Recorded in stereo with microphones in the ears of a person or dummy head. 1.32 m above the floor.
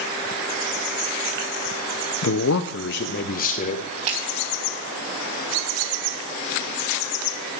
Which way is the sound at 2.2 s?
60° left (ahead or behind).